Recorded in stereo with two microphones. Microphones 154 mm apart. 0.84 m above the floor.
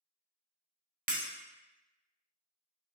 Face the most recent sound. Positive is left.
turn(degrees=-65)  # may be behind; listen again after turning